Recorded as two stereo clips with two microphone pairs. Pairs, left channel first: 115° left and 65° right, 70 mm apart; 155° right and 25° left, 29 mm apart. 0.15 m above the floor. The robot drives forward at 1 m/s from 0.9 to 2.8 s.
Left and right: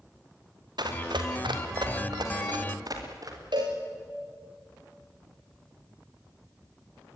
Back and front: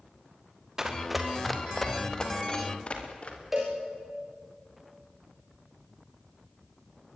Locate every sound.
0.8 s running footsteps: 50° right, 3 m; by 3.4 s 105° right, 5 m
3.5 s a cowbell: 55° right, 5 m